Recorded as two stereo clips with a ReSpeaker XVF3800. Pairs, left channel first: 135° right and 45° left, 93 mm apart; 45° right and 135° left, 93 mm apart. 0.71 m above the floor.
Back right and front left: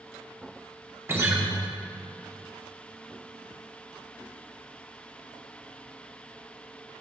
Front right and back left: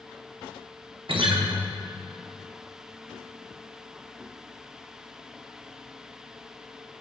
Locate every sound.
1.1 s a guitar: 110° left, 0.9 m